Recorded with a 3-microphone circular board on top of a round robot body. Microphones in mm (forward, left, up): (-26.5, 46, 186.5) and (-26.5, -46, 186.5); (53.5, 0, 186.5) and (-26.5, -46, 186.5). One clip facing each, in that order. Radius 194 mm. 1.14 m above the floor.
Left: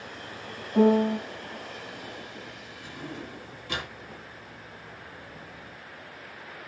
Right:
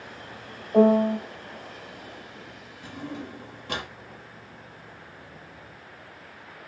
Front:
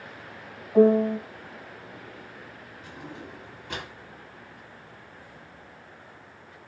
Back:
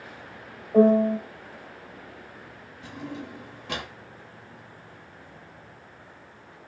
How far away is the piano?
About 3 m.